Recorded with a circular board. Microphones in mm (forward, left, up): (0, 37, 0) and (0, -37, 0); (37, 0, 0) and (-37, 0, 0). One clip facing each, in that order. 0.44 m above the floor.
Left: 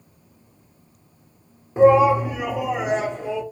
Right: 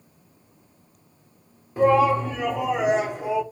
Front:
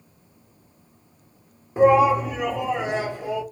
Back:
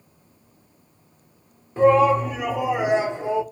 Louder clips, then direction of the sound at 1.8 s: Left 4 dB, even; 50° left.